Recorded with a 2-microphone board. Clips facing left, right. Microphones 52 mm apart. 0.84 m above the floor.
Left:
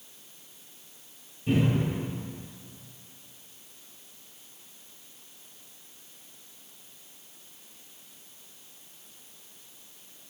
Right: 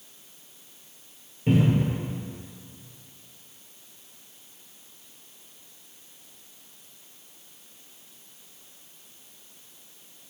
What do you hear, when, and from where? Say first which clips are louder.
1.5 s a cupboard door: right 3 dB; 60° right (ahead or behind), 2 m